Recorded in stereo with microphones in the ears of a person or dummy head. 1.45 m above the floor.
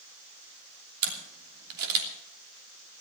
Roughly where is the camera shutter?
Right.